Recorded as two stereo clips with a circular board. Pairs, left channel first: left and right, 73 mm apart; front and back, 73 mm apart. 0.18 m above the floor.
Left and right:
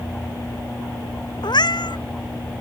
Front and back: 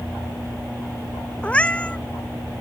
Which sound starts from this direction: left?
A cat meowing, at 1.4 s.